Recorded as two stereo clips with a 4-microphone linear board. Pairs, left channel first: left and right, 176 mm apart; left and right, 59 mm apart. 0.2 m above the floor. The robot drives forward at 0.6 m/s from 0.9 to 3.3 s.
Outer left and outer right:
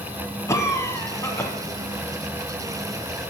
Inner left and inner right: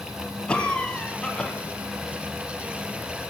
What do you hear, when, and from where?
0.5 s a cough: 15° left (ahead or behind), 1.0 m